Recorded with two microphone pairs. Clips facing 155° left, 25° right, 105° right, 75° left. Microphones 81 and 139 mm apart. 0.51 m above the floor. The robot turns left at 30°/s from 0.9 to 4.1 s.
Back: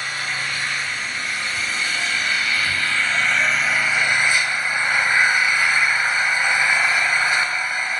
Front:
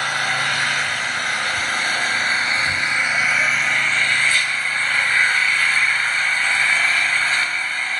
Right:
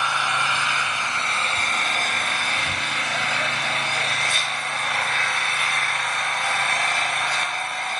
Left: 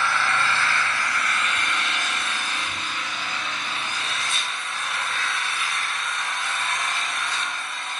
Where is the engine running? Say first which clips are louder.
Front 5 dB, left 1 dB; 35° right, 1.3 m; by 8.0 s 130° right, 1.3 m.